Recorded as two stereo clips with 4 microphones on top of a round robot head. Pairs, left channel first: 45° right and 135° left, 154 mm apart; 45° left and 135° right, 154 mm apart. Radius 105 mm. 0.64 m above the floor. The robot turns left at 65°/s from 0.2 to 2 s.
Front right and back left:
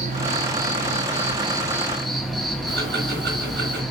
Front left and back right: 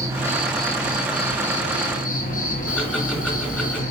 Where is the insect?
160° left, 2 m; by 3.9 s 45° left, 2 m.